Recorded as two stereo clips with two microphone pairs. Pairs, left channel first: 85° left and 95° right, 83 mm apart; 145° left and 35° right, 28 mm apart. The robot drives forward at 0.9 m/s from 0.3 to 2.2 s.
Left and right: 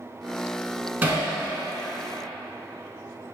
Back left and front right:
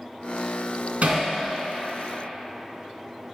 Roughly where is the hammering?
Ahead right.